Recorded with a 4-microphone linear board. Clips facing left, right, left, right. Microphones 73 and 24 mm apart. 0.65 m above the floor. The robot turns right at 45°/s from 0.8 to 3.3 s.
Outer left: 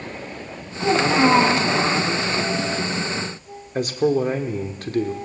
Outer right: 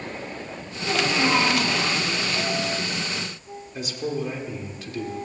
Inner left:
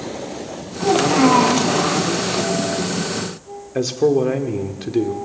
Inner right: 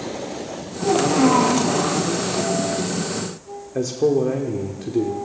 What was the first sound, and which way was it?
A child speaking, 110° left.